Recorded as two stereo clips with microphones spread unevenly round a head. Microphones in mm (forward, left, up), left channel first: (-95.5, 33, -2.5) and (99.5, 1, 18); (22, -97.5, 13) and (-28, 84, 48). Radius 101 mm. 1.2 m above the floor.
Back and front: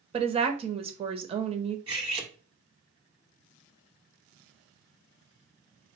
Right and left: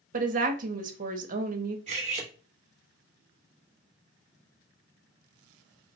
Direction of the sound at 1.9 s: 55° left.